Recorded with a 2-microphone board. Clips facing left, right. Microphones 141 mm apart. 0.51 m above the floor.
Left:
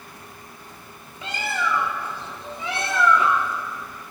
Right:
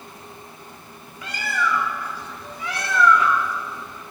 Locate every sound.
1.2 s a bird: 25° left (ahead or behind), 1.1 m